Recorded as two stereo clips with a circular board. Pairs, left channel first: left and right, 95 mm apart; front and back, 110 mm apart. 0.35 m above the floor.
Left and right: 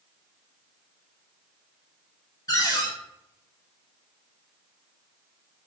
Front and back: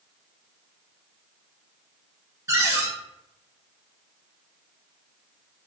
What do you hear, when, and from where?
2.5 s a cupboard door: 125° left, 0.7 m